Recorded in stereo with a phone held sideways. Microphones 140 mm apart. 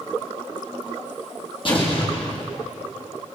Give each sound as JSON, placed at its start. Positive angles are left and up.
{"t": 1.6, "sound": "an explosion", "side_deg": 40, "distance_m": 5.5}